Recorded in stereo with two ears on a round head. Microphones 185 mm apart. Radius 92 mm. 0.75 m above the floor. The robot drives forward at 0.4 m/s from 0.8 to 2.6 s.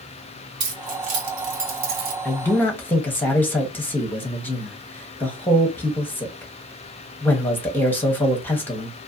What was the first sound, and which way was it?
Keys jangling, 55° right (ahead or behind).